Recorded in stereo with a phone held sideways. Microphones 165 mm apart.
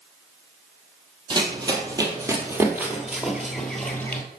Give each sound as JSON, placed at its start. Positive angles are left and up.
{"t": 1.3, "sound": "running footsteps", "side_deg": -30, "distance_m": 2.0}